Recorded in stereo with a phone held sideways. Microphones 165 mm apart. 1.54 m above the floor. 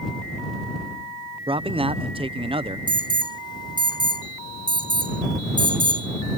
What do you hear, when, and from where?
1.5 s a man speaking: 35° right (ahead or behind)
2.9 s an alarm: 30° left (ahead or behind)